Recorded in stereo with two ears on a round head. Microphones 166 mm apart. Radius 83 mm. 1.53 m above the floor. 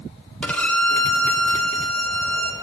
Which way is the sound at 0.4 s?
5° left (ahead or behind).